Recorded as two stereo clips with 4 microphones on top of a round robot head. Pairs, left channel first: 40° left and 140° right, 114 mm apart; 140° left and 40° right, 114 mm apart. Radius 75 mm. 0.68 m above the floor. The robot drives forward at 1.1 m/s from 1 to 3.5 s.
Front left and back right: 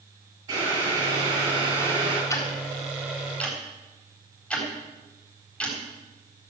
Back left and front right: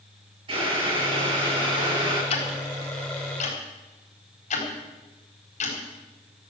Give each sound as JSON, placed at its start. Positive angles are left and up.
{"t": 0.5, "sound": "boiling", "azimuth_deg": -80, "distance_m": 9.5}
{"t": 2.3, "sound": "ticking", "azimuth_deg": 105, "distance_m": 3.5}